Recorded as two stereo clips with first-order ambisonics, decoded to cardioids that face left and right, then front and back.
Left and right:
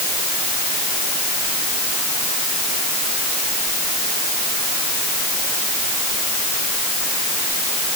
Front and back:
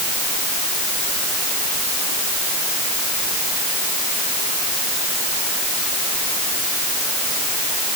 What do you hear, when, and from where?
Only background noise.